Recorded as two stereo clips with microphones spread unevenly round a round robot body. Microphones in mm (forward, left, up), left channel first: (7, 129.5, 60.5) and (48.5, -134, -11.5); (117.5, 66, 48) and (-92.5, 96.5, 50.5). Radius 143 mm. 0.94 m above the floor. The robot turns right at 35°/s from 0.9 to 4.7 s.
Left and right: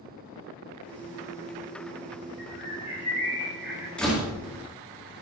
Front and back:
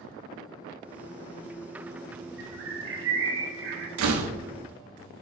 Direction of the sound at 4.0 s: 175° right.